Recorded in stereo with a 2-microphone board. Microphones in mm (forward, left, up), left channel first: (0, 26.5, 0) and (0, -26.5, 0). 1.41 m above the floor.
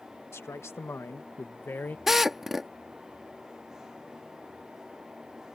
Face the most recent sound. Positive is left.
turn(degrees=-5)  # may be behind; listen again after turning